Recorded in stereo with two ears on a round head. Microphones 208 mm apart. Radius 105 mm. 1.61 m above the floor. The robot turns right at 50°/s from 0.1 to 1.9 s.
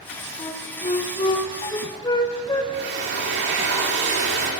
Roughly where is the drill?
Right.